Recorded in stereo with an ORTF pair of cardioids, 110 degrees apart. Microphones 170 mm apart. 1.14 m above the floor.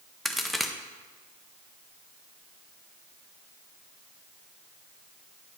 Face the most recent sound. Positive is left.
turn(degrees=0)